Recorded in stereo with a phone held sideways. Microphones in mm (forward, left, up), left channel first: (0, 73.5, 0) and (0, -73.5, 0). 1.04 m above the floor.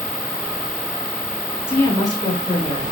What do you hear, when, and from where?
1.7 s a woman speaking: 15° left (ahead or behind), 1.6 m; by 2.9 s 45° left (ahead or behind), 2.5 m